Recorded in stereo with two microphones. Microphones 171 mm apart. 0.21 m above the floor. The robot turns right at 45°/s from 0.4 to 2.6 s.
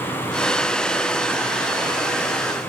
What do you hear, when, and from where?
Only background noise.